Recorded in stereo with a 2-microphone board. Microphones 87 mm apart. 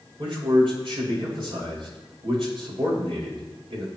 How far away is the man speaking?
About 6 m.